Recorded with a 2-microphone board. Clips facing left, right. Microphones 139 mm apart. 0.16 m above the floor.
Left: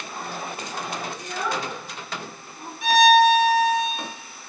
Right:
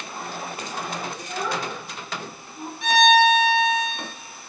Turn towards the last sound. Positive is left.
turn(degrees=0)  # may be behind; listen again after turning